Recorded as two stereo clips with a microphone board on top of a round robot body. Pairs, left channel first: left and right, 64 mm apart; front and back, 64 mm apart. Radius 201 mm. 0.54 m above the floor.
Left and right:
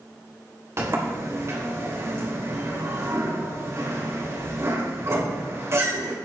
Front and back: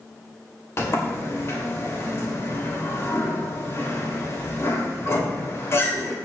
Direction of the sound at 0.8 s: 45° right.